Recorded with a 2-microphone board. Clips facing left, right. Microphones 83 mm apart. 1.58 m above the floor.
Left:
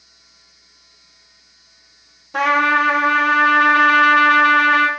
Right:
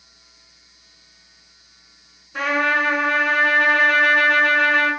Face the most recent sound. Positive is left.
turn(degrees=80)